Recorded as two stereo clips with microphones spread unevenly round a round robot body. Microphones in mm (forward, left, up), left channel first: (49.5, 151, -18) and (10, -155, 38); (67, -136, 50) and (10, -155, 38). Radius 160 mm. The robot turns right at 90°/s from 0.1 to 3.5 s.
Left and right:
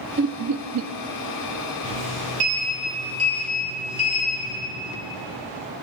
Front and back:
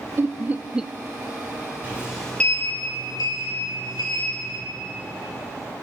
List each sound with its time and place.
0.2 s laughter: 155° right, 0.6 m; by 0.9 s 90° right, 0.6 m
1.8 s a sliding door: 105° right, 6 m; by 4.6 s 45° left, 6 m